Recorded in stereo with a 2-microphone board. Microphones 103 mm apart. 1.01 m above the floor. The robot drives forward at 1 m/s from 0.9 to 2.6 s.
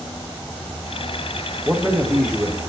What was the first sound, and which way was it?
A man speaking, 5° right (ahead or behind).